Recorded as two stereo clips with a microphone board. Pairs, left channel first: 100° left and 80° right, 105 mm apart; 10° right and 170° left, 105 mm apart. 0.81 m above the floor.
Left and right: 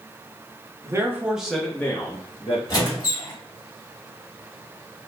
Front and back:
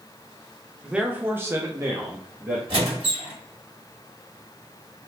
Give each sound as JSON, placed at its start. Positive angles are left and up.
{"t": 0.8, "sound": "a man speaking", "azimuth_deg": -110, "distance_m": 0.6}
{"t": 2.7, "sound": "a squeak", "azimuth_deg": 145, "distance_m": 1.5}